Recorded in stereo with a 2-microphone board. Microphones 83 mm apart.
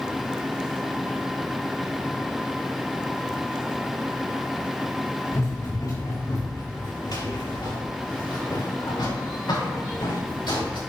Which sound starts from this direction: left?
Running footsteps, at 5.3 s.